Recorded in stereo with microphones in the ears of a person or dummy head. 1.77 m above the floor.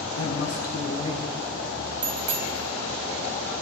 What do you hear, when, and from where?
0.2 s a man speaking: 65° left (ahead or behind), 1.2 m; by 1.4 s 20° left (ahead or behind), 0.7 m
2.0 s a bicycle bell: 40° right (ahead or behind), 3 m